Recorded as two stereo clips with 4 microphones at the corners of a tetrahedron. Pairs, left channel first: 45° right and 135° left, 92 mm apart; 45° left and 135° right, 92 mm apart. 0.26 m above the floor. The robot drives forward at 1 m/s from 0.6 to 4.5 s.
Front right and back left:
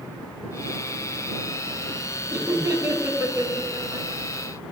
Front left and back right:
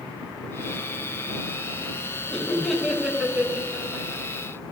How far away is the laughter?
About 1.5 m.